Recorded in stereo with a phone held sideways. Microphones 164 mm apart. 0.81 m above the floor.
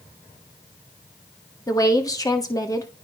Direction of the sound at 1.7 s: 20° left (ahead or behind).